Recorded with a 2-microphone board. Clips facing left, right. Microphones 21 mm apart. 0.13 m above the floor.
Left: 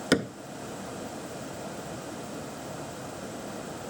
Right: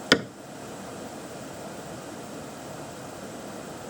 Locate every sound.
0.1 s a cupboard door: 45° right (ahead or behind)